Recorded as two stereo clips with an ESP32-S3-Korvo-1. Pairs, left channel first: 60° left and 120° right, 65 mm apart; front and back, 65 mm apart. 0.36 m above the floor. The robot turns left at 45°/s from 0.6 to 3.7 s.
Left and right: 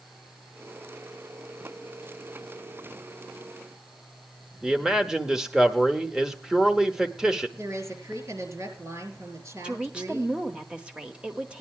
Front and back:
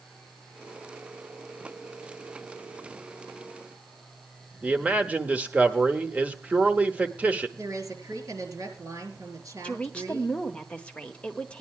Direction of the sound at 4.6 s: 175° left.